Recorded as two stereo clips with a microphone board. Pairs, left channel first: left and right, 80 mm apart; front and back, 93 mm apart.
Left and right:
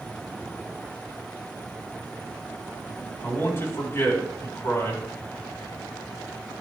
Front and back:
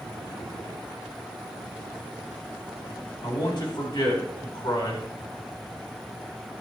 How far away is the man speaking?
About 4 m.